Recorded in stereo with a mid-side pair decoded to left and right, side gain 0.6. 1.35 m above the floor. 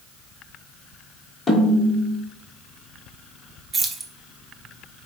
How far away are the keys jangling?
About 0.6 m.